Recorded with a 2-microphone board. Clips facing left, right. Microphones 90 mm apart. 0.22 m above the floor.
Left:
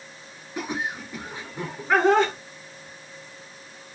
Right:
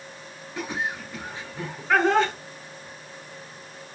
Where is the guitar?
I don't hear a guitar.